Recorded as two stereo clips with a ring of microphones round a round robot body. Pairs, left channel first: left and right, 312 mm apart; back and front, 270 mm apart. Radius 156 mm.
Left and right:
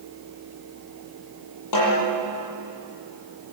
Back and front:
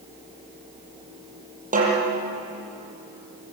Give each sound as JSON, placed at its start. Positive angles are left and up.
{"t": 1.7, "sound": "a snare drum", "azimuth_deg": 60, "distance_m": 8.5}